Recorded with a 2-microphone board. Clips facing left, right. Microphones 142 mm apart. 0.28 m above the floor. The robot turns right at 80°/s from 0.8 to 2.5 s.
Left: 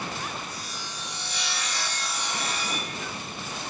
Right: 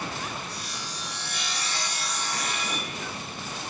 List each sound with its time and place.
0.5 s sawing: 100° right, 2 m; by 3.0 s 35° left, 2 m